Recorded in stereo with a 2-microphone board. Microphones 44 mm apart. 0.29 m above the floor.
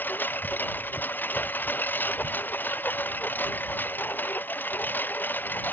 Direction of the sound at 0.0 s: 50° left (ahead or behind).